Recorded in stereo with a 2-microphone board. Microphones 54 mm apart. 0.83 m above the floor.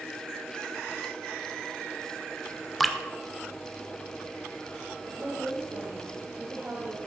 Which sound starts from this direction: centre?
Dripping, at 2.8 s.